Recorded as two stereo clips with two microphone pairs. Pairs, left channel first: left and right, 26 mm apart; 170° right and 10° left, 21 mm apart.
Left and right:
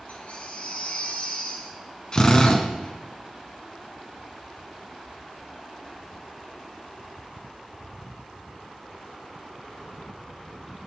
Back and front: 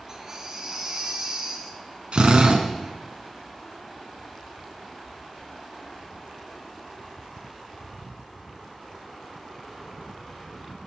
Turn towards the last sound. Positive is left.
turn(degrees=40)